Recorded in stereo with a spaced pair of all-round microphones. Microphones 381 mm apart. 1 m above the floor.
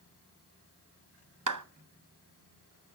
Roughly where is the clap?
Right.